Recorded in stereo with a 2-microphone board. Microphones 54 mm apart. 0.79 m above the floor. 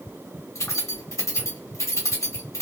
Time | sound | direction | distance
0.6 | keys jangling | 60° left (ahead or behind) | 1.3 m